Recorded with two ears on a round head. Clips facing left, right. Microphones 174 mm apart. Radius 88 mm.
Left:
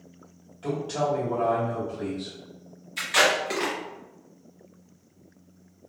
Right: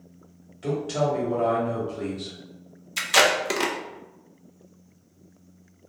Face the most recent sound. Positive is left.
turn(degrees=-55)  # may be behind; listen again after turning